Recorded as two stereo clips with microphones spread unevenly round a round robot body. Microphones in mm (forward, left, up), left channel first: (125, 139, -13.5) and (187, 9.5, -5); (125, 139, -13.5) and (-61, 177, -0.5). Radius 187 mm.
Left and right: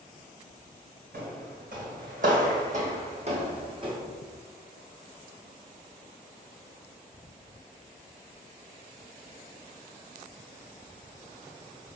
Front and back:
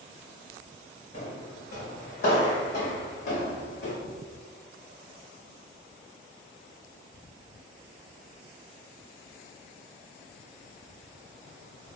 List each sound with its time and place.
1.1 s footsteps: 65° right, 2.0 m; by 4.0 s 10° right, 1.4 m